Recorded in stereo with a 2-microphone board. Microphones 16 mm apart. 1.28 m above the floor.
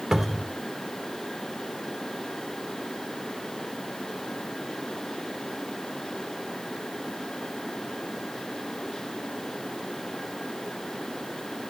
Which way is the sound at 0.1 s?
40° right (ahead or behind).